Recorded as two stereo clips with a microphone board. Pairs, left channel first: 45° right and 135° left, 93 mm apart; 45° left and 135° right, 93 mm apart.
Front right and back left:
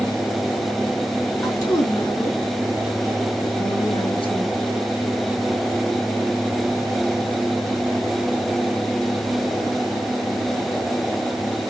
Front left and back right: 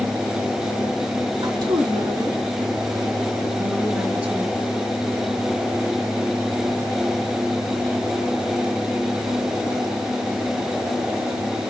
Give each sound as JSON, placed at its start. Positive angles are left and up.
{"t": 1.4, "sound": "a woman speaking", "azimuth_deg": -95, "distance_m": 4.0}